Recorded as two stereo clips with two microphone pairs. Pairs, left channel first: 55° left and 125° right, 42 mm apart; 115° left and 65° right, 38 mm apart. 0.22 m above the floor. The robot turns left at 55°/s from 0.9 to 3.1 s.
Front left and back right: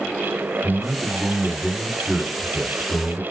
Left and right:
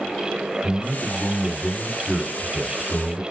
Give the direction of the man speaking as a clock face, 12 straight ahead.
6 o'clock.